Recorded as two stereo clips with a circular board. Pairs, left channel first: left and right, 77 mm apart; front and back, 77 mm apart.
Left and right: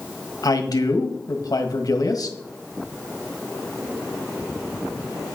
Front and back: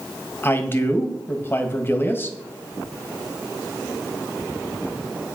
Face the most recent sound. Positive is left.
turn(degrees=60)